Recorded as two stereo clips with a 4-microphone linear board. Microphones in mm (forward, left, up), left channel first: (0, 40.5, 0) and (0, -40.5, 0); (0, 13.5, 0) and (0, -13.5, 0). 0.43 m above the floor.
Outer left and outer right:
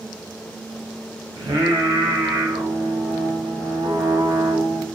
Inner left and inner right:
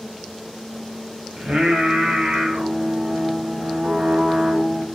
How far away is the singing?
About 1.0 m.